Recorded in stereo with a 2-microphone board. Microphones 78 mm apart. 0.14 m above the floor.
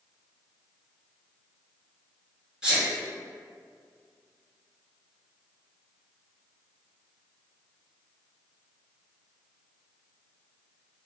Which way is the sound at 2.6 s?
10° right (ahead or behind).